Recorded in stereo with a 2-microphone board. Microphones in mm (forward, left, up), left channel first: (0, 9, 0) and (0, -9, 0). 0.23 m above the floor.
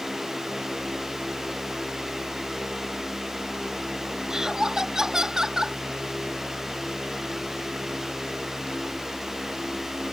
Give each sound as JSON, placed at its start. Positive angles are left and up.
{"t": 4.3, "sound": "laughter", "side_deg": -35}